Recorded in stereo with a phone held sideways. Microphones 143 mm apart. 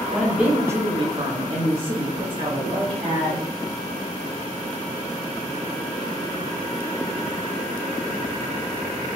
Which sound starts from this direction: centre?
A woman speaking, at 0.1 s.